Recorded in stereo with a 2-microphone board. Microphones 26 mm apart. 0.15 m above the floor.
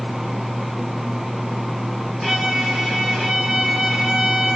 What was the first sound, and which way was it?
A violin, 15° right (ahead or behind).